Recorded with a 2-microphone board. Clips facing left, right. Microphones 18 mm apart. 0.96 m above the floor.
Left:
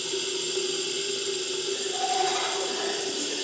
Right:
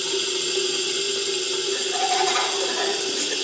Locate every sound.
0.0 s running water: 35° right (ahead or behind), 1.4 m
1.7 s laughter: 40° right (ahead or behind), 1.5 m